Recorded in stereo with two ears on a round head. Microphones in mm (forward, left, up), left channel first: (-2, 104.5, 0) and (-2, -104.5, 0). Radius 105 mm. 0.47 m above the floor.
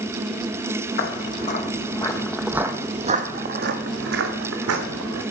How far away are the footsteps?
About 1.8 m.